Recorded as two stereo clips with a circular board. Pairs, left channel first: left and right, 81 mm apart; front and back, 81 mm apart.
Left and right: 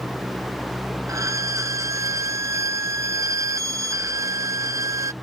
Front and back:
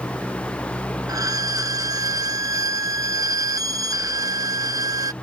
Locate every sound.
1.1 s a violin: 140° right